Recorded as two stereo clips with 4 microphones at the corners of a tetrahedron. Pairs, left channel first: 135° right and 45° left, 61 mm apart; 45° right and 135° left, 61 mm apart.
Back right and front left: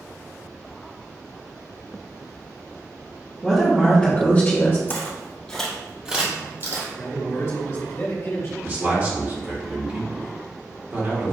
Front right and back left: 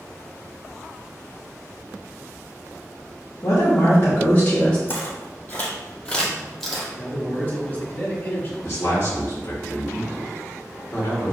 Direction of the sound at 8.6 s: 10° right.